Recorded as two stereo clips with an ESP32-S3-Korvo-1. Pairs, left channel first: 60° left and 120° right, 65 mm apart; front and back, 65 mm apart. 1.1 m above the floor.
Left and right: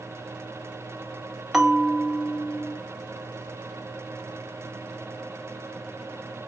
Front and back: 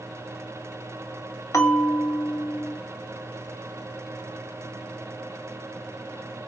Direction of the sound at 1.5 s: 35° right.